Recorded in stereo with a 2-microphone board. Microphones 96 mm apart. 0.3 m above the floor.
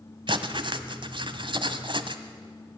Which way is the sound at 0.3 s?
60° right (ahead or behind).